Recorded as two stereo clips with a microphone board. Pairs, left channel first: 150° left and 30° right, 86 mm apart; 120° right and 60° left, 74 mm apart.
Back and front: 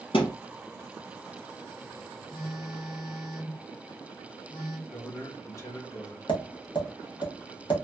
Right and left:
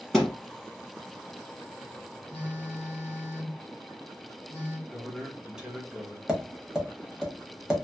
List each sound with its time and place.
0.1 s a thud: 155° left, 1.8 m
2.3 s a phone buzzing: straight behind, 1.1 m
4.9 s a man speaking: 135° left, 0.9 m
6.3 s tapping: 145° left, 1.3 m